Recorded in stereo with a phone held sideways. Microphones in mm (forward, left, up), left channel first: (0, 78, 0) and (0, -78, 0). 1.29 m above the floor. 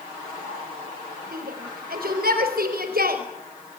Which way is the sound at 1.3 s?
75° right (ahead or behind).